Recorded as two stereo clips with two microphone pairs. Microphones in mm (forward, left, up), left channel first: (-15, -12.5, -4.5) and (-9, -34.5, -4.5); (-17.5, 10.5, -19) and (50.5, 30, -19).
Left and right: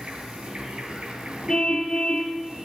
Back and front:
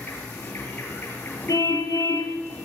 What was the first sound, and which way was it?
An insect, 110° right.